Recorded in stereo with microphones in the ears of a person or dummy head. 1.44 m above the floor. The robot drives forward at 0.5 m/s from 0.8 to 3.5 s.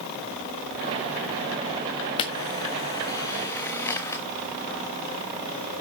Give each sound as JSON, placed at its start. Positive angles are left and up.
{"t": 2.2, "sound": "a camera shutter", "side_deg": 25, "distance_m": 0.8}